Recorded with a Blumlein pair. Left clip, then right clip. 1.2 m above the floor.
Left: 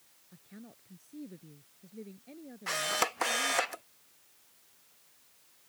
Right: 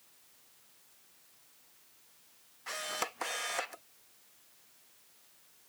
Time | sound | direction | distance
0.3 | a woman speaking | 45° left | ?
2.7 | a camera shutter | 20° left | ?